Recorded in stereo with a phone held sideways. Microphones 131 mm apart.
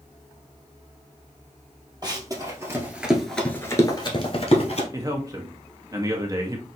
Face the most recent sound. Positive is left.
turn(degrees=-30)  # may be behind; listen again after turning